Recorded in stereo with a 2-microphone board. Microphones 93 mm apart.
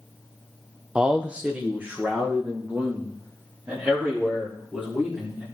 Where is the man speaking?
10° right (ahead or behind), 0.5 m; by 5.5 s 20° right (ahead or behind), 4 m.